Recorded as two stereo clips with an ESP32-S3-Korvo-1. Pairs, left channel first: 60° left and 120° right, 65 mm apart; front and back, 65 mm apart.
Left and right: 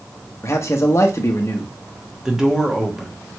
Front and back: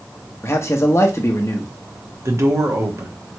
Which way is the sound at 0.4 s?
30° left.